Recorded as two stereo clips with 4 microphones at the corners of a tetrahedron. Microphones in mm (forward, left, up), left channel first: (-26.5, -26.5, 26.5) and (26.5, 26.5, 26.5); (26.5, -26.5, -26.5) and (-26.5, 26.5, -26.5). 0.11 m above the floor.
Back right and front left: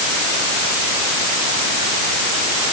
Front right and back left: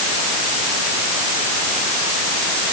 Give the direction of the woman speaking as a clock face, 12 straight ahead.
No woman speaking in this recording.